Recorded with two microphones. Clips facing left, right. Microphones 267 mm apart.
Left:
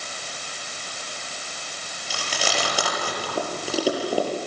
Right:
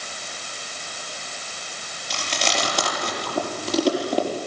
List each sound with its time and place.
2.1 s chewing: 5° left (ahead or behind), 5.5 m